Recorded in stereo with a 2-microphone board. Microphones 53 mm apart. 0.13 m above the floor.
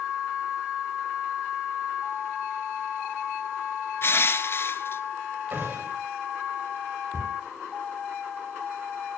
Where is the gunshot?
45° right (ahead or behind), 8.5 m.